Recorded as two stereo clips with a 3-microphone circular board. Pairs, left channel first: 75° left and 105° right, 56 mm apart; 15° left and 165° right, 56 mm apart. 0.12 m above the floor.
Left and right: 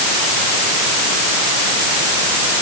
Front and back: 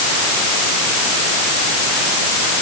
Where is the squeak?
I don't hear a squeak.